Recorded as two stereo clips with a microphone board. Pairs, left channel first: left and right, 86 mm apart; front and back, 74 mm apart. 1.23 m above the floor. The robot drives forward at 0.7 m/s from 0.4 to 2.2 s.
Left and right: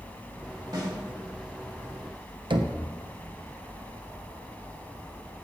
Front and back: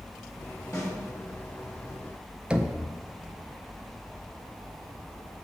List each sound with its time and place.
0.7 s a snare drum: 45° right, 2 m; by 0.9 s 50° right, 2 m
2.5 s knocking: 105° right, 0.5 m